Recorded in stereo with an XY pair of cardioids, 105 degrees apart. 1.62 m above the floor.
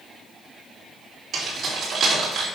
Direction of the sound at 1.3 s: 60° right.